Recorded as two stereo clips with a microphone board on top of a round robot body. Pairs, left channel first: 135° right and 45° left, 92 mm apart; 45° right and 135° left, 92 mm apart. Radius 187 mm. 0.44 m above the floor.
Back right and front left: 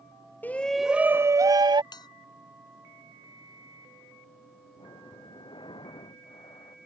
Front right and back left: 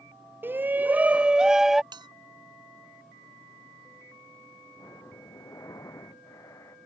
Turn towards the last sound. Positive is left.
turn(degrees=-100)